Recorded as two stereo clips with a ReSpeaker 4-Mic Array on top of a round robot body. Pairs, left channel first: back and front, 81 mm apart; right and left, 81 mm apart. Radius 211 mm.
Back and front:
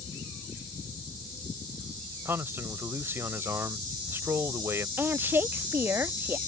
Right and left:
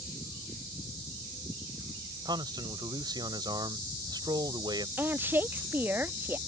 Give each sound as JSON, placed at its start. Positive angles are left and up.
{"t": 2.2, "sound": "a man speaking", "azimuth_deg": 60}
{"t": 5.0, "sound": "a woman speaking", "azimuth_deg": 45}